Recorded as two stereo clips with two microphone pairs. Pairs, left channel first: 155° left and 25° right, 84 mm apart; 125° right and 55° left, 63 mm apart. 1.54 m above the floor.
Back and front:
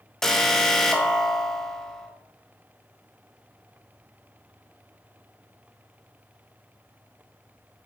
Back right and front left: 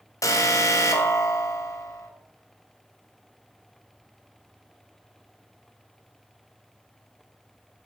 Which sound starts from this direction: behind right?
An alarm, at 0.2 s.